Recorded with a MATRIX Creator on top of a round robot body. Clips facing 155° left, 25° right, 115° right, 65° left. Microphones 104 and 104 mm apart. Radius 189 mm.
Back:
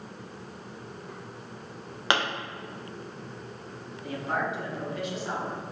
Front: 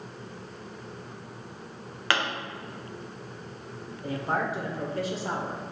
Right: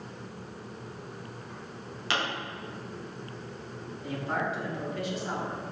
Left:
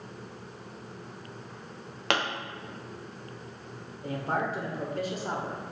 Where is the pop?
90° left, 1.7 m.